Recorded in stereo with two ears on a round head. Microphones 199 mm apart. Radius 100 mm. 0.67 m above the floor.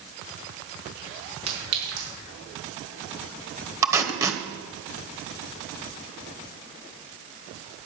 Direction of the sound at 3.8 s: 15° right (ahead or behind).